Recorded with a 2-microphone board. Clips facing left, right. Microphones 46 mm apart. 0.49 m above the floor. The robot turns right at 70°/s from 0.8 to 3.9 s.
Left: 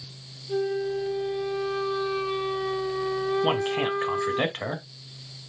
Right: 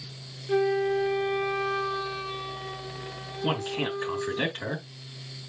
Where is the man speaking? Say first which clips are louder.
Left 4 dB; 55° left, 3 m; by 4.8 s 90° left, 3 m.